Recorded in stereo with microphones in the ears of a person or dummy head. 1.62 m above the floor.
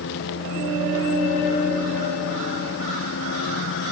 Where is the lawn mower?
70° left (ahead or behind).